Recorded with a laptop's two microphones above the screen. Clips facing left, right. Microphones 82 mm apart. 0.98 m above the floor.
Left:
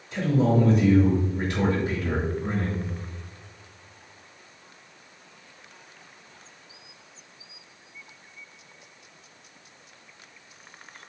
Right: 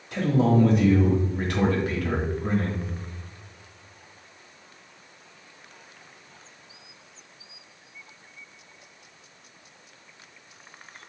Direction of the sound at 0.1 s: 65° right (ahead or behind).